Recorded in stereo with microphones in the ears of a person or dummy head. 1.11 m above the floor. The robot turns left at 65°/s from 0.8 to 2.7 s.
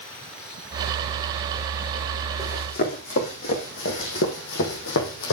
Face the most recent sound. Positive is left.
turn(degrees=65)  # may be behind; listen again after turning